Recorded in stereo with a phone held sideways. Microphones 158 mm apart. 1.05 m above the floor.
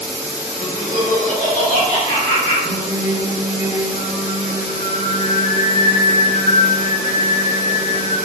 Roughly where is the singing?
Left.